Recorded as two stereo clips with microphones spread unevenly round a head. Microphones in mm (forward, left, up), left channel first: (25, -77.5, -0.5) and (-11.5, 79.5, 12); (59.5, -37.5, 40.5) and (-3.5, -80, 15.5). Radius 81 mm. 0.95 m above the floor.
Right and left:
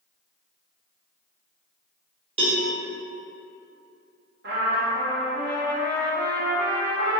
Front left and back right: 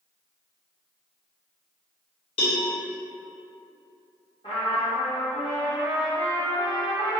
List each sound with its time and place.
2.4 s a cowbell: 45° left, 1.1 m
4.4 s a trumpet: 80° left, 0.9 m